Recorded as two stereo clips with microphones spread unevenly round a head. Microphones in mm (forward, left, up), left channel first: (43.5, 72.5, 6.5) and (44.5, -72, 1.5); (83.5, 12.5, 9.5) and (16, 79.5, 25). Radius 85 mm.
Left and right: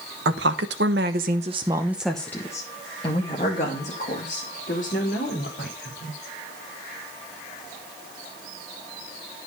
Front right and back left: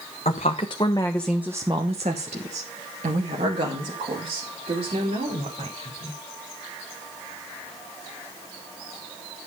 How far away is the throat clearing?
I don't hear throat clearing.